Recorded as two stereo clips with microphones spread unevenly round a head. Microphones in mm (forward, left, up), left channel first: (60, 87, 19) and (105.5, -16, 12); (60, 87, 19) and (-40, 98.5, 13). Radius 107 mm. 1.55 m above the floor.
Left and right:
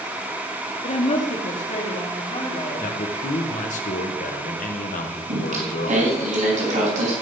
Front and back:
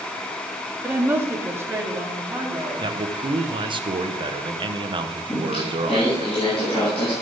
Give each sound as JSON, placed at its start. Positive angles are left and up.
{"t": 0.8, "sound": "a woman speaking", "azimuth_deg": 105, "distance_m": 2.5}
{"t": 2.8, "sound": "a man speaking", "azimuth_deg": 135, "distance_m": 1.4}
{"t": 5.3, "sound": "singing", "azimuth_deg": -70, "distance_m": 4.0}